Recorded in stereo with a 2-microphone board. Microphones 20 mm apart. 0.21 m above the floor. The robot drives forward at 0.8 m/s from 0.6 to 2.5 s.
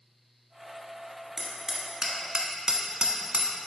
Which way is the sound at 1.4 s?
20° right (ahead or behind).